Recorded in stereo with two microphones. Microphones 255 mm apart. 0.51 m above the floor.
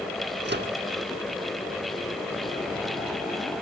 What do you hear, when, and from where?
0.5 s a microwave: 45° right (ahead or behind), 0.8 m